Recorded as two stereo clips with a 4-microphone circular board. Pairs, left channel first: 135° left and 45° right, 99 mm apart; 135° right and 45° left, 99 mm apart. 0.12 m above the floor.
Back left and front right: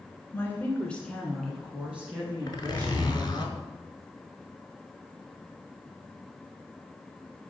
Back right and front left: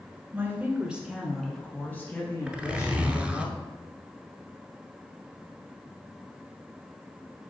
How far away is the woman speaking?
About 1.4 m.